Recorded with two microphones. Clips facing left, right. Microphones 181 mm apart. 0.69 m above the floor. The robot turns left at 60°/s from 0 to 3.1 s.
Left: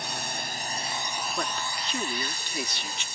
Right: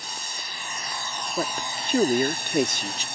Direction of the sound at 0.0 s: 80° left.